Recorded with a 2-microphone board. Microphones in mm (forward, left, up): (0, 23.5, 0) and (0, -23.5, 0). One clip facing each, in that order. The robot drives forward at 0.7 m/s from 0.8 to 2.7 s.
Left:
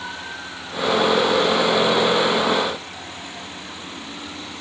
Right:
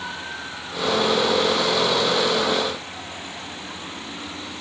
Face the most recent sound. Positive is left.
No sound to turn to.